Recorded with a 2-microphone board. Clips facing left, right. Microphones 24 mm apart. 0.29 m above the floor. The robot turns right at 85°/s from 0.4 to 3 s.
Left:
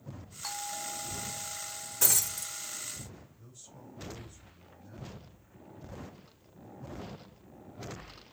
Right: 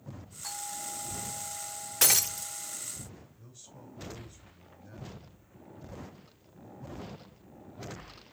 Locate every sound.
0.4 s a doorbell: 135° left, 4 m; by 2.8 s 25° right, 4 m
2.0 s breaking glass: 65° right (ahead or behind), 0.6 m; by 2.5 s 25° right (ahead or behind), 0.6 m
3.4 s a man speaking: 20° right (ahead or behind), 2 m